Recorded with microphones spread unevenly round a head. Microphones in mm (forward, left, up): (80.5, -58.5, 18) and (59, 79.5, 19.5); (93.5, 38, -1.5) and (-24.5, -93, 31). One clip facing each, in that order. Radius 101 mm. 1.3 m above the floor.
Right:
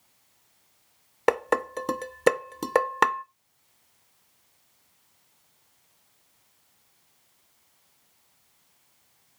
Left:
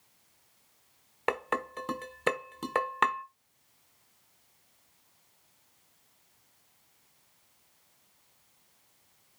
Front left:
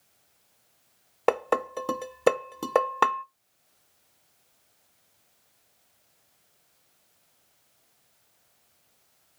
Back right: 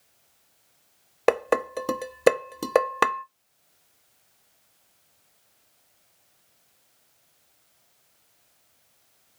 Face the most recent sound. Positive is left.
turn(degrees=-85)